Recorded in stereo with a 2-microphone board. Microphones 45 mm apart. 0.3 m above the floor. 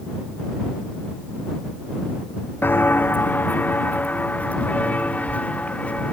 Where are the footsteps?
60° left (ahead or behind); by 6.1 s 35° left (ahead or behind).